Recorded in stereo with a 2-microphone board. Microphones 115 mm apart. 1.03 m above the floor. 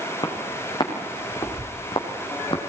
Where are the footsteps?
35° left (ahead or behind), 4.5 m; by 2.6 s 45° left (ahead or behind), 3 m.